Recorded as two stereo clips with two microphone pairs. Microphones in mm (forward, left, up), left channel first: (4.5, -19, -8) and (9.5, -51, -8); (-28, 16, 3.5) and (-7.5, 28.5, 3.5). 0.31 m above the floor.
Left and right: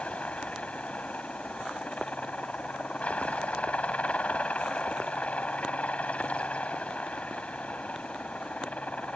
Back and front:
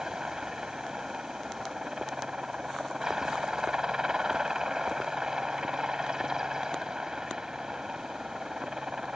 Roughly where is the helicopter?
Left.